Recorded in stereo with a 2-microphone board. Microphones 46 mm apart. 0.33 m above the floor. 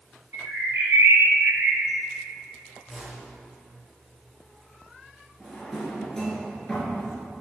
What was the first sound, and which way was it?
A bird, 75° right (ahead or behind).